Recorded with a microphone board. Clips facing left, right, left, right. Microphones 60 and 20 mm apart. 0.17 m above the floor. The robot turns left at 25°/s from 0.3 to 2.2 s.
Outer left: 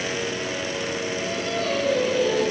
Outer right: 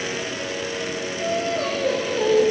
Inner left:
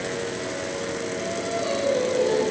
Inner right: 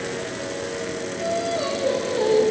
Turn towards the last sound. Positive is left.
turn(degrees=-60)  # may be behind; listen again after turning